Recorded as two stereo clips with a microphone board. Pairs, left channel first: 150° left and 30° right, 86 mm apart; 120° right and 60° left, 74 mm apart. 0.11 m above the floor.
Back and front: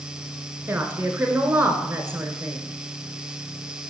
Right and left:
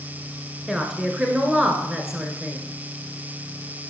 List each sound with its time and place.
0.7 s a woman speaking: 10° right, 1.3 m